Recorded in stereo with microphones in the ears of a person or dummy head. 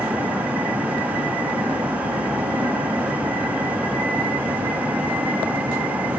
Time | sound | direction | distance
0.0 | a vehicle | 5° right (ahead or behind) | ?